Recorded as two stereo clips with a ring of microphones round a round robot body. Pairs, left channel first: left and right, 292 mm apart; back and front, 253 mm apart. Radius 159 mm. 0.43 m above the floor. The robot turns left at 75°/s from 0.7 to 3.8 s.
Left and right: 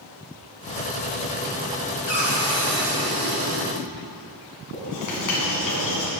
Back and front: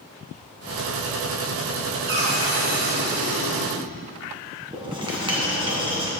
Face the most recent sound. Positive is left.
turn(degrees=70)